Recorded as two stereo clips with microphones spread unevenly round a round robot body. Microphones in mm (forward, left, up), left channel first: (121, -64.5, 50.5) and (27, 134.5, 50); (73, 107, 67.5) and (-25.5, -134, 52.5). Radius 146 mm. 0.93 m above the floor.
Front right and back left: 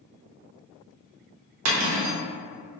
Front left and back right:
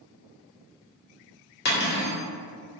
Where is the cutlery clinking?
125° left, 0.9 m.